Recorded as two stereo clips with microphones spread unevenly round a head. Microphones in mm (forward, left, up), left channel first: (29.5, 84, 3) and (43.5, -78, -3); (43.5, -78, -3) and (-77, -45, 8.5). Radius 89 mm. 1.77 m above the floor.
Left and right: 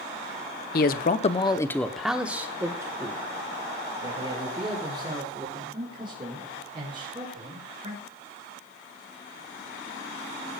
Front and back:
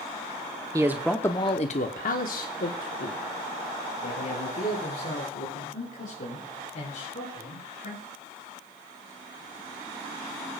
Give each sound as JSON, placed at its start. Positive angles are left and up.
{"t": 0.7, "sound": "a man speaking", "azimuth_deg": 100, "distance_m": 0.9}